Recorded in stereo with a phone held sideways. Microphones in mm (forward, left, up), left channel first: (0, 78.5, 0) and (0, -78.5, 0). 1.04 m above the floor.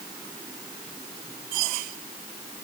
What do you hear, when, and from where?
Only background noise.